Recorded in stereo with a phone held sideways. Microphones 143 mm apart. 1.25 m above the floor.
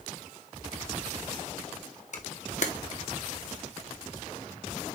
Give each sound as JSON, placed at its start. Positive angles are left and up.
{"t": 2.1, "sound": "a camera shutter", "side_deg": 60, "distance_m": 1.3}